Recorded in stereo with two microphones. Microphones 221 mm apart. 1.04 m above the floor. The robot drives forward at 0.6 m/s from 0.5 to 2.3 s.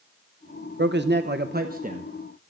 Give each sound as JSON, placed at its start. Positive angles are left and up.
{"t": 0.8, "sound": "a man speaking", "side_deg": -50, "distance_m": 0.7}